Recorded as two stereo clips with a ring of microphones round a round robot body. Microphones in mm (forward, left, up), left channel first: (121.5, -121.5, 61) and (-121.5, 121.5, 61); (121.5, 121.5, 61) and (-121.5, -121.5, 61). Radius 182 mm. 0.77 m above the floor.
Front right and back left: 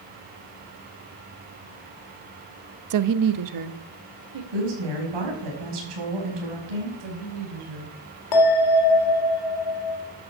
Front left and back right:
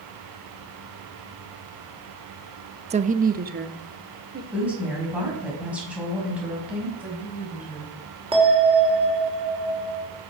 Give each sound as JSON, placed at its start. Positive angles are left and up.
{"t": 2.9, "sound": "a woman speaking", "azimuth_deg": 155, "distance_m": 0.7}
{"t": 4.5, "sound": "a woman speaking", "azimuth_deg": 140, "distance_m": 5.5}
{"t": 7.0, "sound": "a woman speaking", "azimuth_deg": 140, "distance_m": 6.0}
{"t": 8.3, "sound": "a bell", "azimuth_deg": -60, "distance_m": 3.5}